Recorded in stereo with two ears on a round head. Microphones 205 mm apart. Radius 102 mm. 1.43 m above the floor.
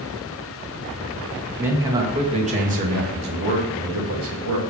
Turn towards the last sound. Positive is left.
turn(degrees=-70)  # may be behind; listen again after turning